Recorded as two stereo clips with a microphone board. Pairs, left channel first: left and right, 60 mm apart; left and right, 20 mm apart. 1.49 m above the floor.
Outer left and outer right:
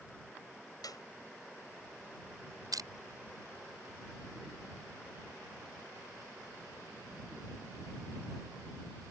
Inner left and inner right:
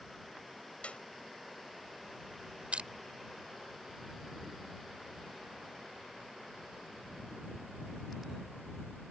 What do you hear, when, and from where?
0.8 s a clap: 85° left
2.7 s crushing: 80° right